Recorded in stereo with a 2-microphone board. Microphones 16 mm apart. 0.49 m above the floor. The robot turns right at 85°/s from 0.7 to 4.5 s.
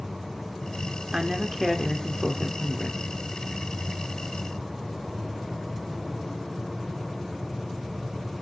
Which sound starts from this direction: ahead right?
A man speaking, at 1.1 s.